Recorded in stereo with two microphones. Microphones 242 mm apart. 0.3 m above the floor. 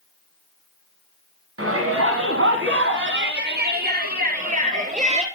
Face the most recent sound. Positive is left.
turn(degrees=-25)  # may be behind; listen again after turning